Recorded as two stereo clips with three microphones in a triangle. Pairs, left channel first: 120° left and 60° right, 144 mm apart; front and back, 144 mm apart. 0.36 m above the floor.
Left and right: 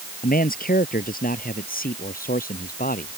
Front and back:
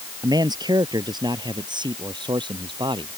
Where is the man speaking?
120° left; by 3.2 s 125° left.